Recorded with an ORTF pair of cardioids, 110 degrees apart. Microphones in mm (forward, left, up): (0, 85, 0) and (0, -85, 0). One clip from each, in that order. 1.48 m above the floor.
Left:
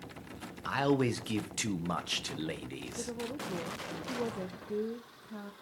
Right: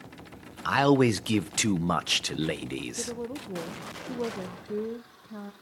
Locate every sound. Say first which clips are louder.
0.7 s a man speaking: right 8 dB; 35° right, 0.6 m
3.0 s a woman speaking: right 3 dB; 15° right, 0.7 m